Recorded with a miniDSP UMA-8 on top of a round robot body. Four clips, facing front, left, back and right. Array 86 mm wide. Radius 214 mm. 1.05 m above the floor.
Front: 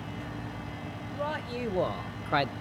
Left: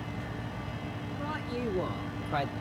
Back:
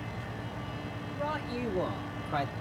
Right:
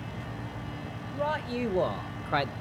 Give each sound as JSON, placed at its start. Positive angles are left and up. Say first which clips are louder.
{"t": 1.1, "sound": "a man speaking", "louder": "right 7 dB, front 1 dB", "azimuth_deg": -65, "distance_m": 1.9}